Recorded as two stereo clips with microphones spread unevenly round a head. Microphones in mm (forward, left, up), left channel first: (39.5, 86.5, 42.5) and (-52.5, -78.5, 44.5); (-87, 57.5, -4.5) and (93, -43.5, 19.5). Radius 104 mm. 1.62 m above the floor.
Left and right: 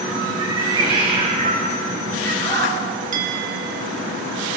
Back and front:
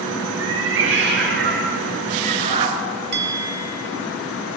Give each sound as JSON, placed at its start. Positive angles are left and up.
{"t": 0.4, "sound": "a cat meowing", "azimuth_deg": -50, "distance_m": 4.0}
{"t": 3.1, "sound": "a bell", "azimuth_deg": -70, "distance_m": 1.9}